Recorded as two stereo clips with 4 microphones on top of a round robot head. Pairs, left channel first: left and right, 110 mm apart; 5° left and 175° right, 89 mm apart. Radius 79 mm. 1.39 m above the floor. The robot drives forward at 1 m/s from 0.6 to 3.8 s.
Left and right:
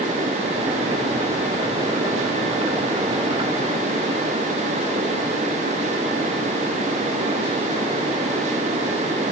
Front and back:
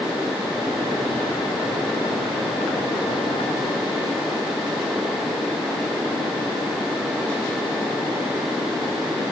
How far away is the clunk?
No clunk in this recording.